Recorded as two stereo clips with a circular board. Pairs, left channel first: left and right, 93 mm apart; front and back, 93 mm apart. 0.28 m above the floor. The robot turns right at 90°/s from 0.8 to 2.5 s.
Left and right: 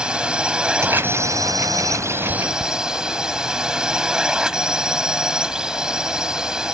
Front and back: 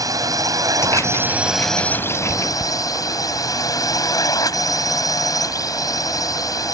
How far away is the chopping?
I don't hear chopping.